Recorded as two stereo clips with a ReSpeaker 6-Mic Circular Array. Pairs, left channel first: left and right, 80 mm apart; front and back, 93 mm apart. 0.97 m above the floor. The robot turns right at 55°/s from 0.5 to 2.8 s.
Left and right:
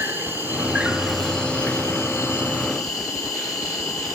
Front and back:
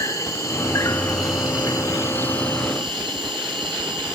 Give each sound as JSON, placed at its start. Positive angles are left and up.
{"t": 0.0, "sound": "an insect", "azimuth_deg": -35, "distance_m": 1.2}